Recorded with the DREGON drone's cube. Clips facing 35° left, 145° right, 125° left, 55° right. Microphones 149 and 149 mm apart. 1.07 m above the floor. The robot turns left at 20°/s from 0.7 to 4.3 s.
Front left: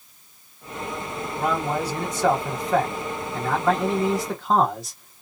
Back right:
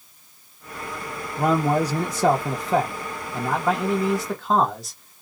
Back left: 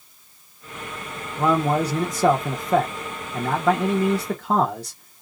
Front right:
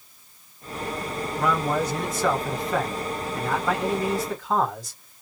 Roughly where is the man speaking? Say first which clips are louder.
Back right 5 dB, back left 4 dB; behind.